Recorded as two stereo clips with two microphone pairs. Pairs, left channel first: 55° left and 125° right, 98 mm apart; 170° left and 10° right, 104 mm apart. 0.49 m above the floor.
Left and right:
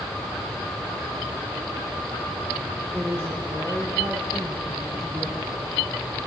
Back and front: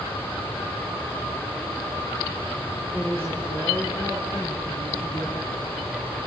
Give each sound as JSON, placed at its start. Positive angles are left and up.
{"t": 2.9, "sound": "a woman speaking", "azimuth_deg": -25, "distance_m": 7.5}